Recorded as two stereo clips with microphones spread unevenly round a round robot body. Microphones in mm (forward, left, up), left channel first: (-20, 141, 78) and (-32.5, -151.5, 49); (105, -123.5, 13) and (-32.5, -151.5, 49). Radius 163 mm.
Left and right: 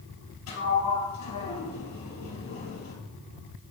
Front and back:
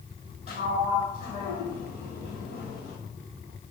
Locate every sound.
0.5 s a sliding door: 130° left, 3 m